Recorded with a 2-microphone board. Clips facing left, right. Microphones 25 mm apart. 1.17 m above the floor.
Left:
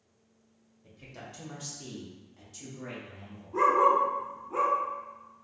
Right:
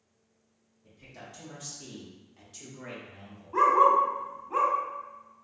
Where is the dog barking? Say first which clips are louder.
Right 2 dB; 40° right (ahead or behind), 0.8 m.